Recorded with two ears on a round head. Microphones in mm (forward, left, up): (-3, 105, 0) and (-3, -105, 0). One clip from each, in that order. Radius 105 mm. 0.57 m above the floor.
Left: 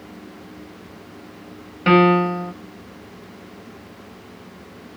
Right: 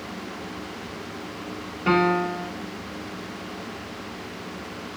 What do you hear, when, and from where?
1.9 s a piano: 40° left (ahead or behind), 0.9 m